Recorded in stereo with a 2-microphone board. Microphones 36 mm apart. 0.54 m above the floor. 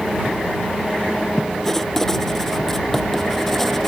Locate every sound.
1.6 s writing: 10° left (ahead or behind)